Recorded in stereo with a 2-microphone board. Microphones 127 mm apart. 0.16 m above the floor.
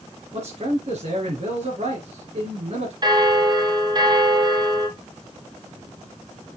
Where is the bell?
35° right (ahead or behind), 1.2 m.